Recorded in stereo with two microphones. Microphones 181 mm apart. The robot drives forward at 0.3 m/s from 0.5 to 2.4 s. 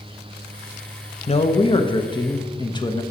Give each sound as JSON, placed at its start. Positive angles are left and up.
{"t": 1.3, "sound": "a man speaking", "side_deg": 35, "distance_m": 0.7}